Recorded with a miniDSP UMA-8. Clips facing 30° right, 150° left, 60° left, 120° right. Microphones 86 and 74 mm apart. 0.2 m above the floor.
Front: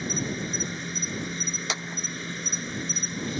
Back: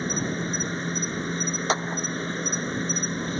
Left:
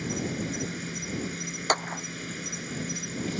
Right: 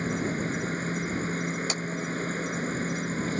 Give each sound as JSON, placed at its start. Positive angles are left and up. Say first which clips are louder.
{"t": 0.0, "sound": "an insect", "louder": "back 3 dB, right 3 dB", "azimuth_deg": -165}
{"t": 1.7, "sound": "a clap", "louder": "back 10 dB, left 4 dB", "azimuth_deg": 100}